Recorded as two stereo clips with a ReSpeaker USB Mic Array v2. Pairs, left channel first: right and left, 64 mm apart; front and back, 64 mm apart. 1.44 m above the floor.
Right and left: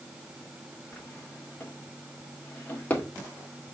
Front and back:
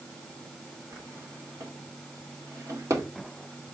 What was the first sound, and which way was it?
A drawer, 155° right.